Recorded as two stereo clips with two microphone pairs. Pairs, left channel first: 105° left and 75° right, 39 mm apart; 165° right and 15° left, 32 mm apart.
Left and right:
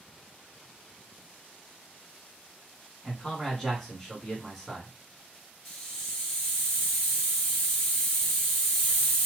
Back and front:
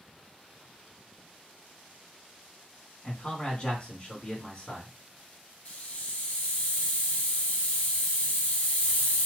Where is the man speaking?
Straight behind, 1.8 m.